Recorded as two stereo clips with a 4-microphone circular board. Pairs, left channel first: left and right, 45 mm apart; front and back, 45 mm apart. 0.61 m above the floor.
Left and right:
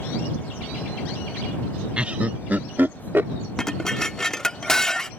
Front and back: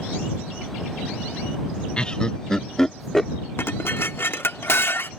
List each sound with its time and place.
2.0 s laughter: 45° right; by 3.3 s 80° right
3.6 s dishes clattering: 15° left